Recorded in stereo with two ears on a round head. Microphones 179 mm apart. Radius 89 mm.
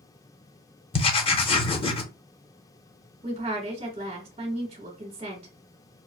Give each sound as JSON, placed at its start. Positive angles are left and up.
{"t": 0.9, "sound": "writing", "side_deg": 30, "distance_m": 0.7}
{"t": 3.2, "sound": "a woman speaking", "side_deg": -30, "distance_m": 1.2}